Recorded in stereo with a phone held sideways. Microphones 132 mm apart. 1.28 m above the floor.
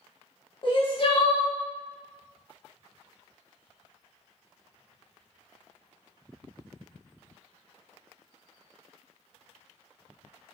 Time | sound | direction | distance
0.6 | crying | 45° left (ahead or behind) | 0.6 m